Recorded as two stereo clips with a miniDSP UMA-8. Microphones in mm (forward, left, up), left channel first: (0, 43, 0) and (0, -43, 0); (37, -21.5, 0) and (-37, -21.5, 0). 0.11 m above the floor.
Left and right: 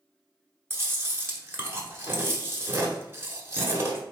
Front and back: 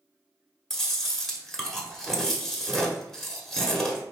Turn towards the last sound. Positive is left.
turn(degrees=-85)